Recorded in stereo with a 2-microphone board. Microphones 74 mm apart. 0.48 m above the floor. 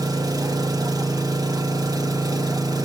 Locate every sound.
0.0 s an engine running: 65° right (ahead or behind), 1.0 m